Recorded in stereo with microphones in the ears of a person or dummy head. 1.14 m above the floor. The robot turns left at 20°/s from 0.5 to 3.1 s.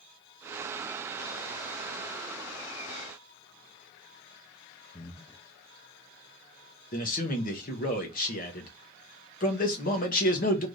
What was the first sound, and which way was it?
Breathing, 25° left (ahead or behind).